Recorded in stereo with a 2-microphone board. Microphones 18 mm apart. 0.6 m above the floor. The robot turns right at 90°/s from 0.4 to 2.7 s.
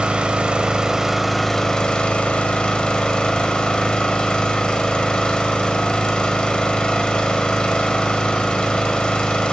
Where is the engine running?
85° right, 0.9 m; by 9.5 s 125° left, 0.9 m.